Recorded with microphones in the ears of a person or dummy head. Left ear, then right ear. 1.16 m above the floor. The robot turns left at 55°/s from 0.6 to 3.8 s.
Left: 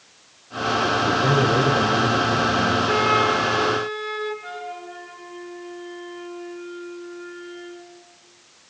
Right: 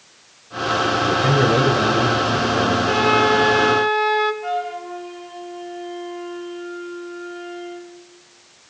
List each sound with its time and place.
1.0 s a man speaking: 10° left, 6 m; by 2.8 s 85° right, 6 m
2.9 s a flute: 20° right, 2.5 m; by 4.3 s 70° right, 2.5 m
4.4 s a flute: 80° right, 10 m